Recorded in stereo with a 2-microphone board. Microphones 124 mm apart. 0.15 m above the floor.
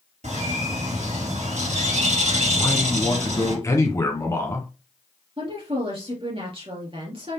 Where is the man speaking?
25° left (ahead or behind), 1.2 m.